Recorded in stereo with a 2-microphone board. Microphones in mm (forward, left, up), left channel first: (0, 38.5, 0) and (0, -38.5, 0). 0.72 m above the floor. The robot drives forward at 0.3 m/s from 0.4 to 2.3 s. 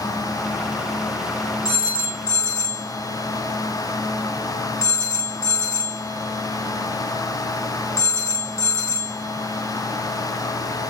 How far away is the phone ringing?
About 1.0 m.